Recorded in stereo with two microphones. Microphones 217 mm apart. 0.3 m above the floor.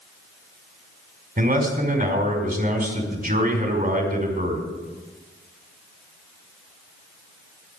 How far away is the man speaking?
About 3 m.